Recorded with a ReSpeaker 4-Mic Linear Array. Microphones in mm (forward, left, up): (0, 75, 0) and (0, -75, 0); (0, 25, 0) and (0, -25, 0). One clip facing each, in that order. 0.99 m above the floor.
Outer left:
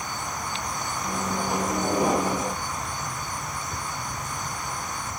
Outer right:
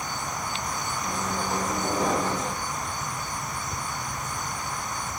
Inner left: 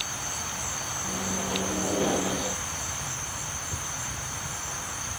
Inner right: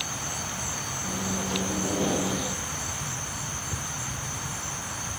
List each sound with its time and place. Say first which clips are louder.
1.0 s a microwave: outer left 2 dB, inner right 1 dB; 15° left (ahead or behind), 0.6 m